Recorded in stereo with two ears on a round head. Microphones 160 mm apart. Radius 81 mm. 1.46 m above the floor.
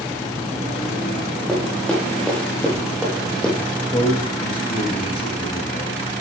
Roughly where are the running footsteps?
Centre.